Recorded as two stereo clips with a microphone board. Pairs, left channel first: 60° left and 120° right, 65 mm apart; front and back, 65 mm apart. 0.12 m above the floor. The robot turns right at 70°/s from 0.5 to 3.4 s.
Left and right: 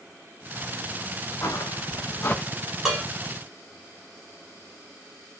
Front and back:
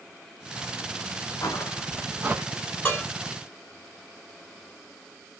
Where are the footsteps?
20° left, 0.9 m; by 2.4 s 140° left, 0.5 m.